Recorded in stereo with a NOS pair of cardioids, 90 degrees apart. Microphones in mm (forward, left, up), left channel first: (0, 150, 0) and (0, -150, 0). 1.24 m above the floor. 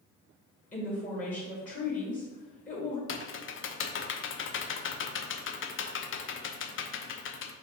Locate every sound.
0.7 s a woman speaking: 25° left, 2.0 m
3.1 s typing on a keyboard: 45° left, 0.6 m